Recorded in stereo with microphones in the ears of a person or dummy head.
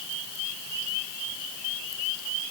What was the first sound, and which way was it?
Only background noise.